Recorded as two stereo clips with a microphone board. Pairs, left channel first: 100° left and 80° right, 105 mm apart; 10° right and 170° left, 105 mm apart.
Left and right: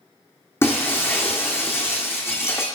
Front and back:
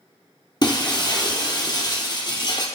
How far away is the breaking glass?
About 1.8 m.